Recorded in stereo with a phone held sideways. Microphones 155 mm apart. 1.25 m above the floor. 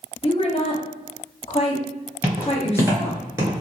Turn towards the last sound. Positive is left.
turn(degrees=-20)  # may be behind; listen again after turning